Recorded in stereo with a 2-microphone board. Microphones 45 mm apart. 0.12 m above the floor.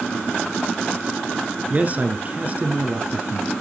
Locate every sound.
1.7 s a man speaking: 35° right (ahead or behind), 1.8 m